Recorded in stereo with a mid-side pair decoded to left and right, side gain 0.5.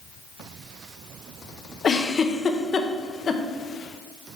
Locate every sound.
1.8 s a giggle: 40° left, 0.5 m